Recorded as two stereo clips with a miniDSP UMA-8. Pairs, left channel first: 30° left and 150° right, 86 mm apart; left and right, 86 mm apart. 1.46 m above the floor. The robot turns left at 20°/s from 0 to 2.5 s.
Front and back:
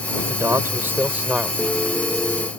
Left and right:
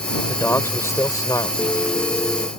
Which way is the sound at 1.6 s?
130° left.